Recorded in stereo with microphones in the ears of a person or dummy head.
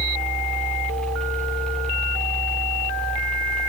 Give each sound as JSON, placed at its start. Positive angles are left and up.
{"t": 0.0, "sound": "a fan", "side_deg": 5, "distance_m": 1.4}